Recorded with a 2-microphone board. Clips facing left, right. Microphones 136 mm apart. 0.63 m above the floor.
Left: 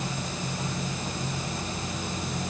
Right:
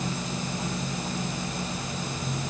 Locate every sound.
Only background noise.